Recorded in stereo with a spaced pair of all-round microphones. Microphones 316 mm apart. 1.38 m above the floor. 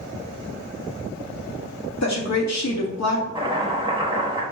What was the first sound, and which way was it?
A woman speaking, 55° left (ahead or behind).